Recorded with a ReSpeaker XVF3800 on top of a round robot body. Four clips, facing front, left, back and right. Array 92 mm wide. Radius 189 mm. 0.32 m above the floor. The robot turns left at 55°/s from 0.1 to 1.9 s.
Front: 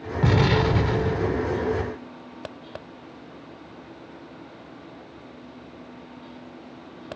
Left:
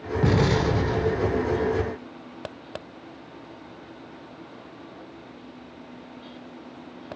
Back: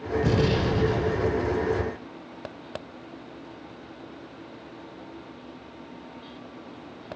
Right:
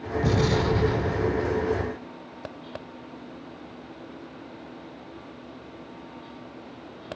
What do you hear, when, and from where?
0.2 s an explosion: 40° left, 3 m; by 1.5 s 25° right, 3 m